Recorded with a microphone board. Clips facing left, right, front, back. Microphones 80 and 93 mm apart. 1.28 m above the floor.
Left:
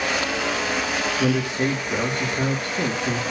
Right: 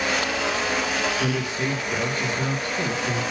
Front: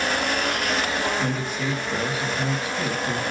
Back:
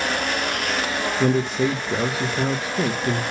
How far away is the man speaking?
About 1.2 m.